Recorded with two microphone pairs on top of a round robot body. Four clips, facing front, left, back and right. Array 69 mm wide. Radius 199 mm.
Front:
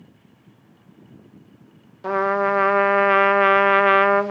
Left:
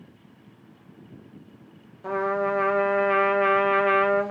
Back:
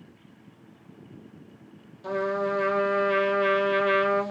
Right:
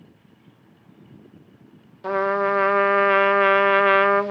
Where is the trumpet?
35° right, 0.6 m.